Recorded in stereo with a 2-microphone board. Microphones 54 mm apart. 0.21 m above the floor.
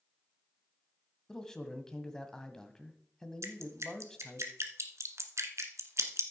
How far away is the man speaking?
About 1.2 m.